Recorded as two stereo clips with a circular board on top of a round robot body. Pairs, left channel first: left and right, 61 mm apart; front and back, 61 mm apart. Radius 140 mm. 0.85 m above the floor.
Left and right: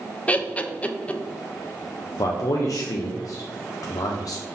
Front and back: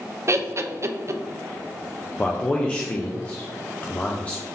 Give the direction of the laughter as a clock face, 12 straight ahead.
7 o'clock.